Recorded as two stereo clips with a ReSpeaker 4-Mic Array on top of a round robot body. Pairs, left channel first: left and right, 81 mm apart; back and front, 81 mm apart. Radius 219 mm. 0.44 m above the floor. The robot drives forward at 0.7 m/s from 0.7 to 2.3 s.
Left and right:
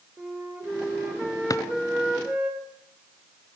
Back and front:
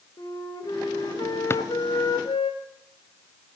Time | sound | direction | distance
0.2 | a flute | 155° right | 1.9 m
1.5 | a drawer | 125° left | 0.6 m